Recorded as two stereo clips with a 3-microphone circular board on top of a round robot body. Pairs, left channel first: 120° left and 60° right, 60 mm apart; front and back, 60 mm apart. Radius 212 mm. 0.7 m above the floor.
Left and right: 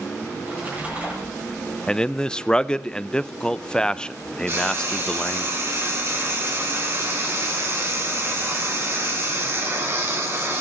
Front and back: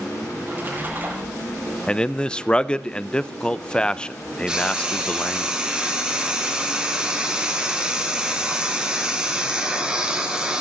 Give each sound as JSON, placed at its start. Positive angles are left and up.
{"t": 0.3, "sound": "a splash", "azimuth_deg": -125, "distance_m": 5.5}
{"t": 1.9, "sound": "a man speaking", "azimuth_deg": 55, "distance_m": 0.6}
{"t": 4.5, "sound": "frying", "azimuth_deg": -105, "distance_m": 3.0}